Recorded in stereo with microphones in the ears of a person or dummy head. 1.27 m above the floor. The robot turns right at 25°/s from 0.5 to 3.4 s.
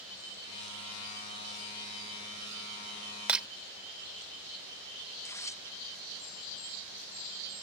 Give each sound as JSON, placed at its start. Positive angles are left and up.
{"t": 3.3, "sound": "breaking glass", "side_deg": -5}
{"t": 5.1, "sound": "tearing paper", "side_deg": 15}